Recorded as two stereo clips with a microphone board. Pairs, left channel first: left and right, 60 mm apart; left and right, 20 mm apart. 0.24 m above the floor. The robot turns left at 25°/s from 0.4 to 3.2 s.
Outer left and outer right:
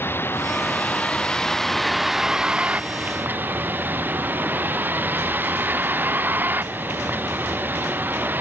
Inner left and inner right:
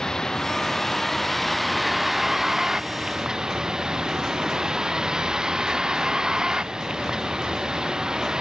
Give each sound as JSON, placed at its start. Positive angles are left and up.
{"t": 0.0, "sound": "a vehicle", "azimuth_deg": 40}